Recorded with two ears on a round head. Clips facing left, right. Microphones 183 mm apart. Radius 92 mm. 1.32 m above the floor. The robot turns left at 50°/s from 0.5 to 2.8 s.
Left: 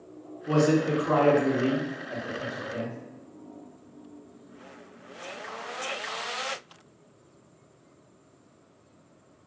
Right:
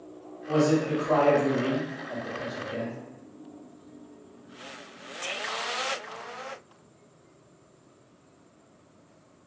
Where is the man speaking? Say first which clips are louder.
Left 1 dB; 80° left, 0.8 m; by 3.0 s 35° right, 0.8 m.